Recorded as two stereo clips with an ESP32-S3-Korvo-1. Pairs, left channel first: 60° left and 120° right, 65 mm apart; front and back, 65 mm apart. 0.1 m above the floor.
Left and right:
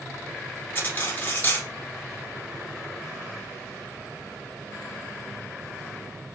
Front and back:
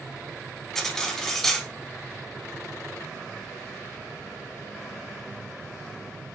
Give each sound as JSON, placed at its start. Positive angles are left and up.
{"t": 0.8, "sound": "cutlery clinking", "azimuth_deg": 80, "distance_m": 0.9}